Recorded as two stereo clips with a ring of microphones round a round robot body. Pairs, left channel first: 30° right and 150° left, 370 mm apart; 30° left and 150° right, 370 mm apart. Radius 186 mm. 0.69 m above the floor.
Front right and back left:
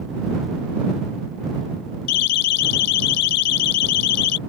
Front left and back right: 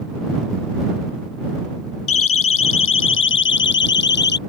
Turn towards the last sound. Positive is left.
turn(degrees=-35)